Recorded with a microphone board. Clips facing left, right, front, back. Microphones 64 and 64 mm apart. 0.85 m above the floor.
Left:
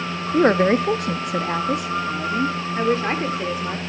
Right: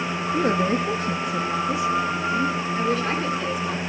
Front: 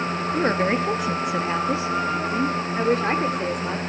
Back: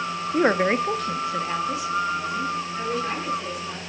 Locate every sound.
0.3 s a woman speaking: 115° left, 1.0 m; by 3.8 s 30° left, 2.5 m